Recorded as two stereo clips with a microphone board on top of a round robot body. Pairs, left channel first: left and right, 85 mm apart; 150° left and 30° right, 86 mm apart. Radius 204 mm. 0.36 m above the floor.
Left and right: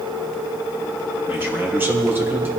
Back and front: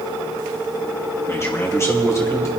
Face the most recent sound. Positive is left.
turn(degrees=-155)